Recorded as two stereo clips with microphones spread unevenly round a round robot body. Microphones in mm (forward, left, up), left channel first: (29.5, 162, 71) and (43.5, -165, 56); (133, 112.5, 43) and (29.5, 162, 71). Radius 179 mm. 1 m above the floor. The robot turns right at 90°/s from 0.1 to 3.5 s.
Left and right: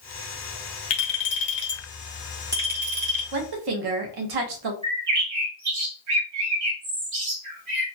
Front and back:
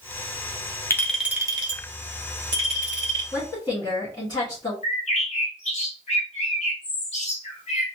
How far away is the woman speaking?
About 1.2 m.